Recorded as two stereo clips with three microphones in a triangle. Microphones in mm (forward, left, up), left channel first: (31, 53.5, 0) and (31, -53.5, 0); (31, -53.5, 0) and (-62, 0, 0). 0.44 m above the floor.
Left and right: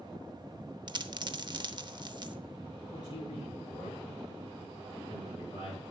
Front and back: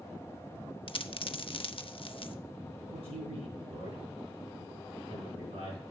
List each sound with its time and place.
0.9 s a dropped coin: 50° right, 0.6 m
2.9 s a man speaking: 130° left, 4.5 m